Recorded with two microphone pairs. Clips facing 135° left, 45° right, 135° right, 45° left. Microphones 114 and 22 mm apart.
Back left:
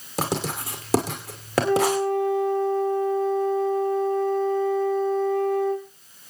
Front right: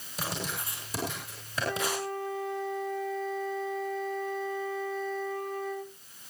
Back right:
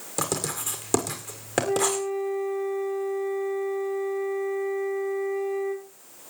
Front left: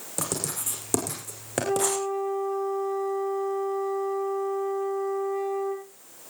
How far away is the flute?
About 7 m.